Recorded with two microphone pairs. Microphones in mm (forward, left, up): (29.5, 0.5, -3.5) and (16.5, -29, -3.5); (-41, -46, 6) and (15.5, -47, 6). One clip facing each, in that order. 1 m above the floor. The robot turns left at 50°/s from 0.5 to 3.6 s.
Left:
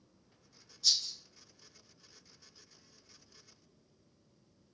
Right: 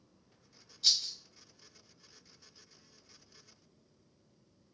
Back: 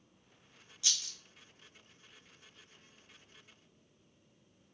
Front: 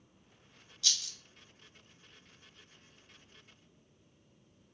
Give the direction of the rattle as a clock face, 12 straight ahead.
4 o'clock.